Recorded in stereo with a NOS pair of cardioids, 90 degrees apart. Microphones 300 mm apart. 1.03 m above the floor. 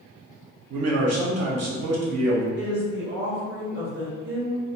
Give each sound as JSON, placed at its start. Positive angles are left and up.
{"t": 0.7, "sound": "a man speaking", "azimuth_deg": -60, "distance_m": 1.1}
{"t": 2.6, "sound": "a woman speaking", "azimuth_deg": -40, "distance_m": 1.4}